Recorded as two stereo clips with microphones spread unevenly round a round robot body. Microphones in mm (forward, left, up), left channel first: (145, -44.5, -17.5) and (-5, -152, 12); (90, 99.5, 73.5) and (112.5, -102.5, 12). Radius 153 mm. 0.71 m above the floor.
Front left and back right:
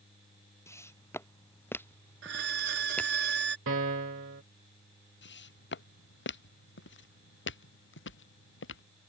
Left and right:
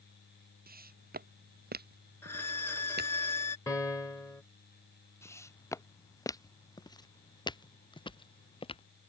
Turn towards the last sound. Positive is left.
turn(degrees=35)